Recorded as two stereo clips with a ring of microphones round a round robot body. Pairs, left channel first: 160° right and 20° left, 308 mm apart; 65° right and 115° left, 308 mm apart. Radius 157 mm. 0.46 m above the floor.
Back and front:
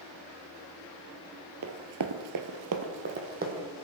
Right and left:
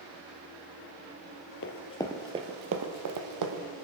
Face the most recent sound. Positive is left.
turn(degrees=85)